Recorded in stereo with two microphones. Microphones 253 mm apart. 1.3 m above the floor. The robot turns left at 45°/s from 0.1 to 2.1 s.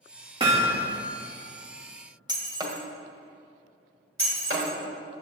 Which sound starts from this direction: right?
Breaking glass, at 4.2 s.